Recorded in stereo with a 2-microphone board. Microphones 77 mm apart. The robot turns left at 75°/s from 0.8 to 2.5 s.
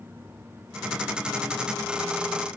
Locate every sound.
Only background noise.